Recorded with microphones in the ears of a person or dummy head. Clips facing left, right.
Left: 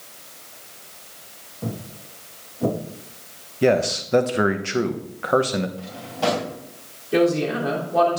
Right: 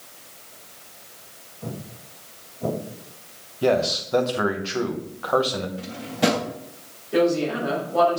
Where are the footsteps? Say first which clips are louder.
Left 4 dB; 70° left (ahead or behind), 4 m; by 2.8 s 75° left (ahead or behind), 5 m.